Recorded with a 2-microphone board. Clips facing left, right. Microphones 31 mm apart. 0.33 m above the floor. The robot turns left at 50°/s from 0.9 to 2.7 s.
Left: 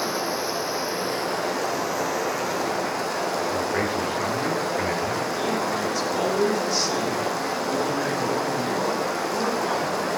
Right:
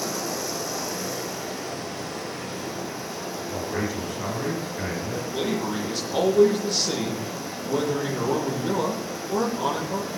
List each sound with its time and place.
0.0 s running water: 150° left, 2 m; by 10.2 s 60° left, 2 m
3.5 s a man speaking: 10° left (ahead or behind), 3 m
5.3 s a man speaking: 45° right (ahead or behind), 10 m